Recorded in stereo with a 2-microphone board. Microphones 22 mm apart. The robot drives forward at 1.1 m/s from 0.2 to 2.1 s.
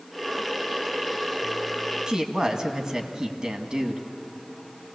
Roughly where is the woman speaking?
Right.